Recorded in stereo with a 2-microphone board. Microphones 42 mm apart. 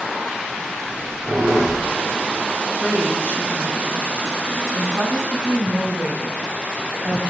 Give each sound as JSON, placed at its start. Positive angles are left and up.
{"t": 0.8, "sound": "a squeak", "side_deg": -45, "distance_m": 3.5}
{"t": 2.8, "sound": "a woman speaking", "side_deg": -65, "distance_m": 3.0}